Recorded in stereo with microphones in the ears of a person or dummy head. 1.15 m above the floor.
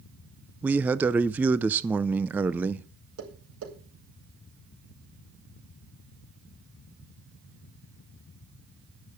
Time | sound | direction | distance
0.6 | a man speaking | 5° right (ahead or behind) | 0.5 m
3.2 | tapping | 85° right | 5 m